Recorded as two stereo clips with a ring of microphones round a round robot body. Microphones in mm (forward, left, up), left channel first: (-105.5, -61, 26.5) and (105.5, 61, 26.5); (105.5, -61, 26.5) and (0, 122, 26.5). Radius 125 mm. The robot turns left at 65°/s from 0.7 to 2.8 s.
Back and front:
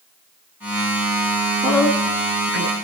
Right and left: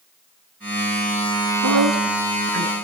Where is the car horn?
I don't hear a car horn.